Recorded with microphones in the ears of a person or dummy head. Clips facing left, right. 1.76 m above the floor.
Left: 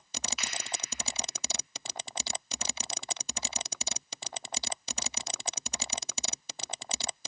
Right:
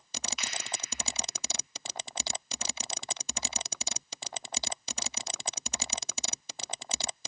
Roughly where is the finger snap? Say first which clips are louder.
Even; centre.